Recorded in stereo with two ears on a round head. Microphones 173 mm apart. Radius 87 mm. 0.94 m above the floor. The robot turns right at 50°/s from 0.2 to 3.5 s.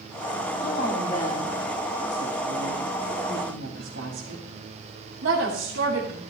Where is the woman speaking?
50° left (ahead or behind), 2.5 m; by 6.2 s 75° right (ahead or behind), 2.5 m.